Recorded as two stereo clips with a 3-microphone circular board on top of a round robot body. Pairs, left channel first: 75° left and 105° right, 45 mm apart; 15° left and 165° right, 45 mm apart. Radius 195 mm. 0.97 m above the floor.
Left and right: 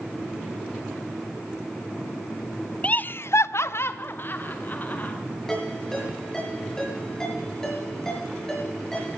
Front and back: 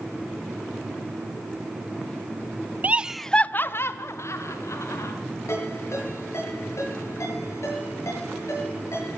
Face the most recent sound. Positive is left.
turn(degrees=-5)